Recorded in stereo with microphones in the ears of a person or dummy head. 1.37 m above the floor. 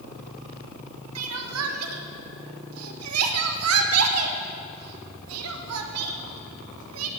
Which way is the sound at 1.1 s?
90° right.